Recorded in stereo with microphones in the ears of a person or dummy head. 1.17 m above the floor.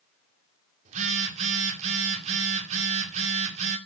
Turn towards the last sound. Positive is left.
turn(degrees=-45)  # may be behind; listen again after turning